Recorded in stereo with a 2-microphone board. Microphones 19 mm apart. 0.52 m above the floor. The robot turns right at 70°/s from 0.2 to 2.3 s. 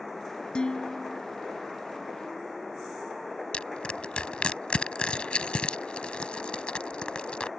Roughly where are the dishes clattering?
Ahead left.